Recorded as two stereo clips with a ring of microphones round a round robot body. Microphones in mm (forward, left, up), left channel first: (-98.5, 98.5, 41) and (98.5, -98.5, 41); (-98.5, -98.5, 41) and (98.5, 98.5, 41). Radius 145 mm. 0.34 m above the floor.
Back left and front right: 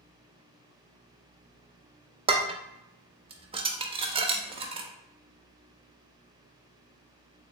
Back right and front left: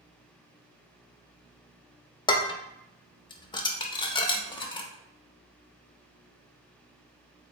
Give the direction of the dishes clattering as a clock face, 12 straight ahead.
3 o'clock.